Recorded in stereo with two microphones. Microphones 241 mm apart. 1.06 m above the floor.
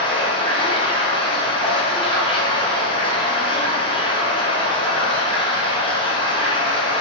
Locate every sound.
0.0 s running water: 20° left (ahead or behind), 0.8 m